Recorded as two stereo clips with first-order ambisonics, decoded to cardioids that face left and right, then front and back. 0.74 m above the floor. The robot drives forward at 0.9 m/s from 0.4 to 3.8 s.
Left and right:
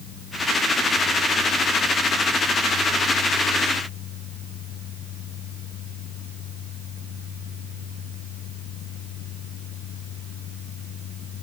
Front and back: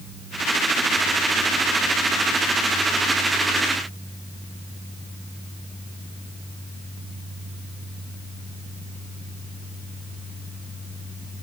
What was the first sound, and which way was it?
Only background noise.